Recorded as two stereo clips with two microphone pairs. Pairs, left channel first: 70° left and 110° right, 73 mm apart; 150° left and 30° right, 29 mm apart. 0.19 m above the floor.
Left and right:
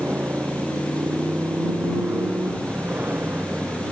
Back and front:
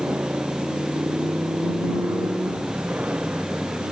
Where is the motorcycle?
45° right.